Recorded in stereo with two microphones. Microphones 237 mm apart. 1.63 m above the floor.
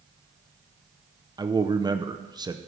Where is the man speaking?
15° right (ahead or behind), 0.6 m.